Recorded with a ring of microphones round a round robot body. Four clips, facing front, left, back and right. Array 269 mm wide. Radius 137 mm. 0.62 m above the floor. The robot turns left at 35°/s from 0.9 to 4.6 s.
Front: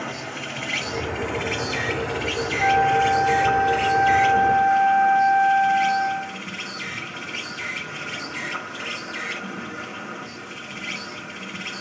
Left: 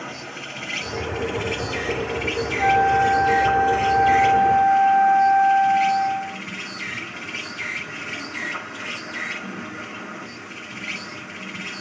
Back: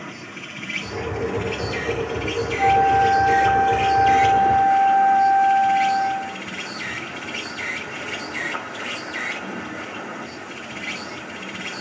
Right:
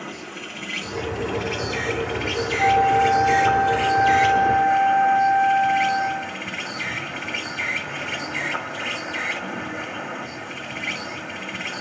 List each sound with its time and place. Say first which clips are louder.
0.0 s an insect: even, front 5 dB; 5° right, 3 m; by 11.8 s 135° right, 3 m
2.6 s a flute: even, back 3 dB; 140° right, 1.6 m; by 6.4 s 150° left, 1.6 m